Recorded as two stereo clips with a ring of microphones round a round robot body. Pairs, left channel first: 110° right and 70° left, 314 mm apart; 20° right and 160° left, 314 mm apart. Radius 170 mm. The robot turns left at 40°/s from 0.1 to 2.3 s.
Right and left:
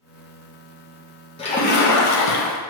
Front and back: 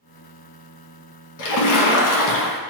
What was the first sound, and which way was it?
A splash, 40° right.